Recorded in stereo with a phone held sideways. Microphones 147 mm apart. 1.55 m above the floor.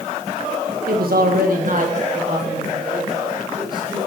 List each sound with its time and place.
0.9 s a man speaking: 85° right, 1.9 m; by 4.0 s 30° right (ahead or behind), 5 m